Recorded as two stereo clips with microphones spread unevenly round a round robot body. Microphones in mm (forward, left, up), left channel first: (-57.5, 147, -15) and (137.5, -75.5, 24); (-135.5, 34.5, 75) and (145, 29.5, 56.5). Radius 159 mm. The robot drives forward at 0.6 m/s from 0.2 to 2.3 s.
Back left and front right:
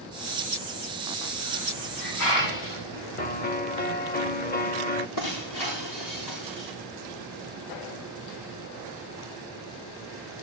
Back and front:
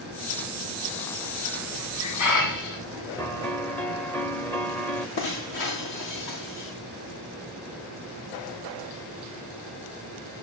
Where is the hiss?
160° left, 8.5 m.